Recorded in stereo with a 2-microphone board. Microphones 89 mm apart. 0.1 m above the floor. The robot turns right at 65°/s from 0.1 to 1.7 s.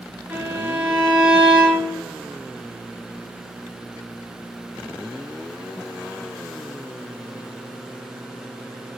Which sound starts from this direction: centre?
A violin, at 0.3 s.